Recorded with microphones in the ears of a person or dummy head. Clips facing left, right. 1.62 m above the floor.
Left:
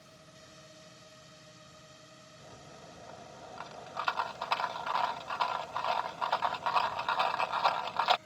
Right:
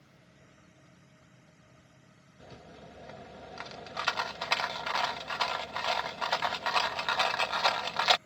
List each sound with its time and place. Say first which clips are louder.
0.0 s a drone: left 4 dB; 90° left; by 8.3 s 60° left (ahead or behind)
2.4 s a rattle: right 3 dB; 30° right (ahead or behind)